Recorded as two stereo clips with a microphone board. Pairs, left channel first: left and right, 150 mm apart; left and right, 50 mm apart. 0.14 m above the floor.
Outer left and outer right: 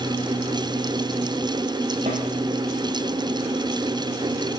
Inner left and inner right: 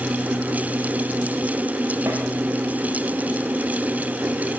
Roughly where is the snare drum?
Right.